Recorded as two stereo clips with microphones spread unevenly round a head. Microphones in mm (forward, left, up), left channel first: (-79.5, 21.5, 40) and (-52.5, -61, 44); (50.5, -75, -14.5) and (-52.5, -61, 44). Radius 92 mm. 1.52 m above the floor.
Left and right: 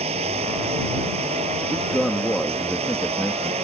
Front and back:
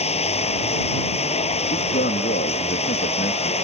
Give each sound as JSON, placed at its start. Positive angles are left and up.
{"t": 0.0, "sound": "running water", "azimuth_deg": -40}
{"t": 1.7, "sound": "a man speaking", "azimuth_deg": 15}